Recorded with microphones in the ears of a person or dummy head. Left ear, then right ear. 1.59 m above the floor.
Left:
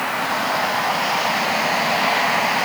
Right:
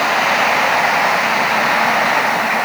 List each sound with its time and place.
Only background noise.